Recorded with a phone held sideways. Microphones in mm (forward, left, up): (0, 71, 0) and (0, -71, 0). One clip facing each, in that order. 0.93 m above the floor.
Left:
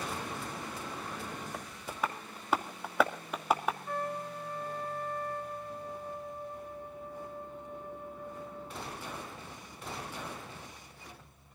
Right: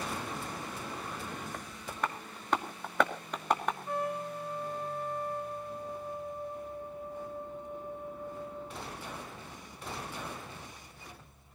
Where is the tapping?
5° left (ahead or behind), 2 m.